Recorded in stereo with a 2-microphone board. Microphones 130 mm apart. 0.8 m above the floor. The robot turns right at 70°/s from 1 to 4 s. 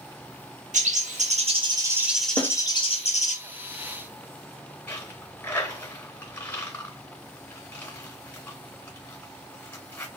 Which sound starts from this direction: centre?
A dropped coin, at 4.9 s.